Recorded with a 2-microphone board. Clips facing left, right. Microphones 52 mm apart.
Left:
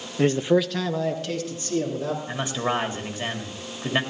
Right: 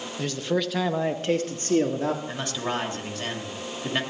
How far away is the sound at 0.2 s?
About 0.7 m.